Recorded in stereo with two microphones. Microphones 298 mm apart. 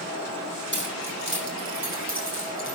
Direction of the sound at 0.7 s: 35° right (ahead or behind).